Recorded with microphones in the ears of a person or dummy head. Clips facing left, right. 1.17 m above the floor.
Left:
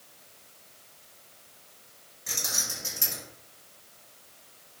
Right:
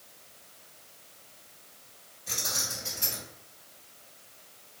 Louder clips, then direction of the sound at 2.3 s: Right 1 dB; 75° left (ahead or behind).